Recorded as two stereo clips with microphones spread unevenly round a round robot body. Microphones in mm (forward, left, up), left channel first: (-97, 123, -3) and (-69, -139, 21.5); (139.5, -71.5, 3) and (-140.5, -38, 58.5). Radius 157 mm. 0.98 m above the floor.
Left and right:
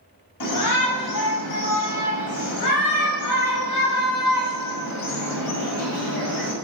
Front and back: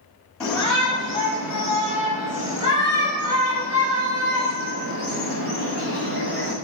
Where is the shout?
80° left, 6 m; by 6.5 s 120° left, 5.5 m.